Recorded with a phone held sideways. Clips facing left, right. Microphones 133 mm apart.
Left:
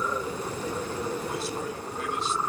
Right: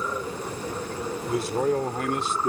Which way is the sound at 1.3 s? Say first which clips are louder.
Right 8 dB; 65° right (ahead or behind).